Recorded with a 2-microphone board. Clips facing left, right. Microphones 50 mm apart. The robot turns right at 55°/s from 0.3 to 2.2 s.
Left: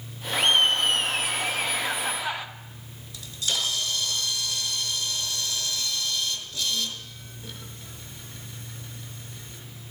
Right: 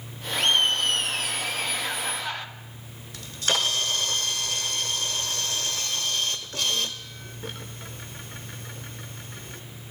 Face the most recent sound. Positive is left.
turn(degrees=-60)  # may be behind; listen again after turning